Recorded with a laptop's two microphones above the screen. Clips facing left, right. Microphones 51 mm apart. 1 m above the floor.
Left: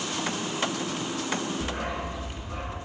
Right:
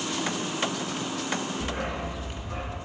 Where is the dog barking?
15° left (ahead or behind), 3 m; by 2.8 s centre (ahead or behind), 2 m.